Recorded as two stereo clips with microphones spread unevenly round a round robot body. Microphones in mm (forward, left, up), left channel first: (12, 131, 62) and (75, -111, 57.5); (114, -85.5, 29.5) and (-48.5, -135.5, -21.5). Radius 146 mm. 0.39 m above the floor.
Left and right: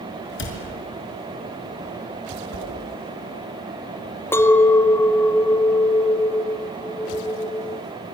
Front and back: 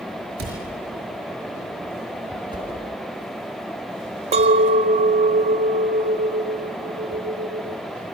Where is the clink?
175° right, 1.2 m.